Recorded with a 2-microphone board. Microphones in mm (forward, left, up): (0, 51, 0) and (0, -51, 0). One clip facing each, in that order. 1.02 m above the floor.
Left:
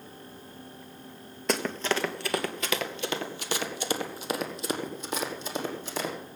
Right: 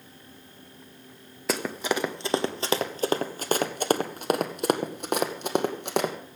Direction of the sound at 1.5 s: 5° right (ahead or behind).